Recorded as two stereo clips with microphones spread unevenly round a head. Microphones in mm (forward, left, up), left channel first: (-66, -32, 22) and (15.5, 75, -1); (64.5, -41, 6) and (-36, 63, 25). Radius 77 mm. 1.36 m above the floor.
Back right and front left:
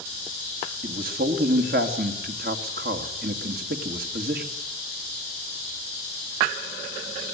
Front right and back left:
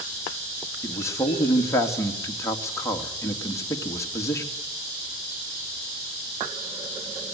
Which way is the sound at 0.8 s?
25° left.